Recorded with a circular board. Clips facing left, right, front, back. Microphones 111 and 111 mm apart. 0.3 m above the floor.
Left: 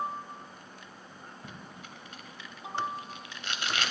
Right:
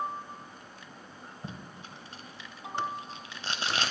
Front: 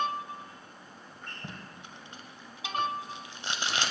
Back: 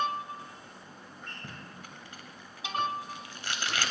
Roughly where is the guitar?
I don't hear a guitar.